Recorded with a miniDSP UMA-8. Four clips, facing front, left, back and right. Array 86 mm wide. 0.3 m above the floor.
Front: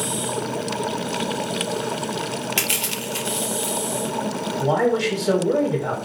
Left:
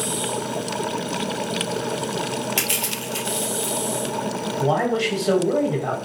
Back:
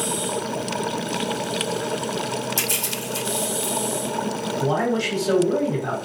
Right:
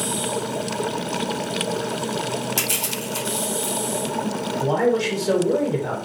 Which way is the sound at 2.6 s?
25° left.